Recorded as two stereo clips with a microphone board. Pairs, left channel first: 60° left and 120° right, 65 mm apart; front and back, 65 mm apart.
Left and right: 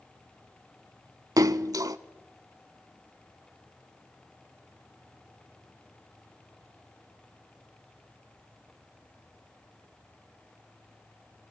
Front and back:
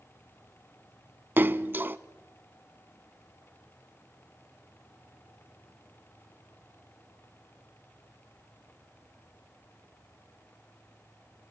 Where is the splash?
125° right, 0.6 m.